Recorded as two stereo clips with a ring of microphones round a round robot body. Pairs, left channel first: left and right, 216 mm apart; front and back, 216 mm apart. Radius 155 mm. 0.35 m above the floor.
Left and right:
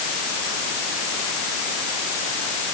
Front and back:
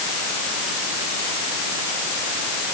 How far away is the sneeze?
No sneeze in this recording.